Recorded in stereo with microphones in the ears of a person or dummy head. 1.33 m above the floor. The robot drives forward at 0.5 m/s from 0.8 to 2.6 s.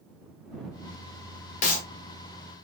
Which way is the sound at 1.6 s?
40° left (ahead or behind).